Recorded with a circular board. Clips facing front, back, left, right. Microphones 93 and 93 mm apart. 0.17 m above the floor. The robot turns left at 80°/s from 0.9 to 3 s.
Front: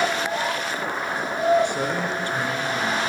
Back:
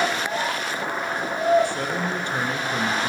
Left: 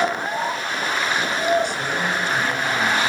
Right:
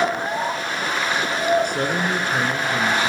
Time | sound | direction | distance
1.6 | a man speaking | 65° right | 2 m